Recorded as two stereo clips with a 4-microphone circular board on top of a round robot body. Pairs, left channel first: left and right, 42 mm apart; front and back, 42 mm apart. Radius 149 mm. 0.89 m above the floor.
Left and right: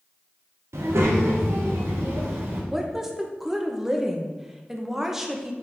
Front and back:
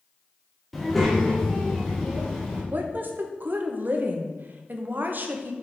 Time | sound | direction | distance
0.7 | a child speaking | 90° right | 1.3 m
2.7 | a woman speaking | 170° right | 1.0 m